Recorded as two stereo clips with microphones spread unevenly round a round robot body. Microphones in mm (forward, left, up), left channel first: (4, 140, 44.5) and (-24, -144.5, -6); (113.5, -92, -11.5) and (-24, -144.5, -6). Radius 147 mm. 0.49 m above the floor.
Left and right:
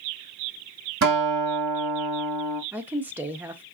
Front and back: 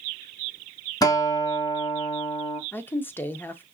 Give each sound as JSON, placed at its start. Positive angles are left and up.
{"t": 1.0, "sound": "a guitar", "azimuth_deg": -45, "distance_m": 1.9}
{"t": 2.7, "sound": "a woman speaking", "azimuth_deg": -35, "distance_m": 0.7}